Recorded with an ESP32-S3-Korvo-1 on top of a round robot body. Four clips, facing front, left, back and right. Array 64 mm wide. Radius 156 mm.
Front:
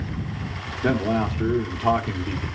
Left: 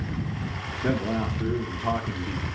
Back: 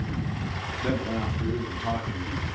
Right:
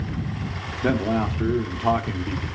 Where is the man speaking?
55° right, 1.6 m.